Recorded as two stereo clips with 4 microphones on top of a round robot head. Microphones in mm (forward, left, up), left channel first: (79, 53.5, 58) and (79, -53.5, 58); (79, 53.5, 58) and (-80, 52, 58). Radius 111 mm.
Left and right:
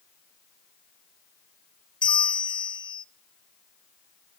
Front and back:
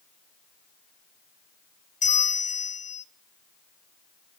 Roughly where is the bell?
Ahead left.